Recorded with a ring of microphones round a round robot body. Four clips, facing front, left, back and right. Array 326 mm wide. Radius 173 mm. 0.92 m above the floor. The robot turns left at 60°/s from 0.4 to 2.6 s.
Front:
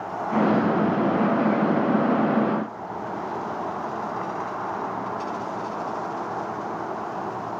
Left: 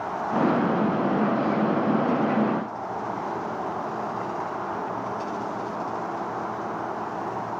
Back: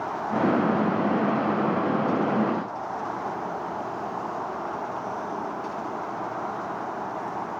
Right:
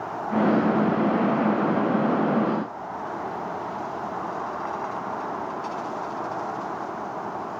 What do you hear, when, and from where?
Only background noise.